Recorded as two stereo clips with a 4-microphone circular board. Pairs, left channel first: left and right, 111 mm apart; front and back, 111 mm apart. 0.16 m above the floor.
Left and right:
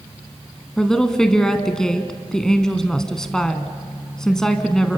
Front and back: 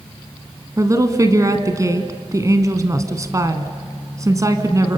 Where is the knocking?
I don't hear knocking.